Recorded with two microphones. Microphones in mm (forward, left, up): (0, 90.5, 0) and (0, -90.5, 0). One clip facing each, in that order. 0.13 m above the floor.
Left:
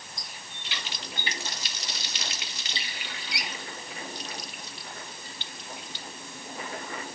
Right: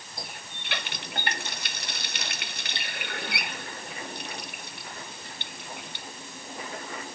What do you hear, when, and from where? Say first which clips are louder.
0.2 s a running tap: right 4 dB; 60° right (ahead or behind)